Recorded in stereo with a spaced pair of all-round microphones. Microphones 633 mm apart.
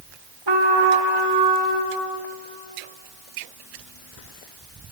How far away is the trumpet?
About 1.1 m.